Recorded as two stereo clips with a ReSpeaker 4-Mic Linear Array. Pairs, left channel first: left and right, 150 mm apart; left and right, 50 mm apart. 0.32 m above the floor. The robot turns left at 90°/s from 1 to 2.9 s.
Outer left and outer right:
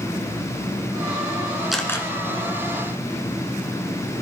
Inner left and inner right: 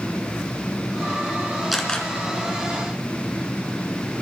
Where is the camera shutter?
Straight behind, 1.9 m; by 2.1 s 150° left, 1.9 m.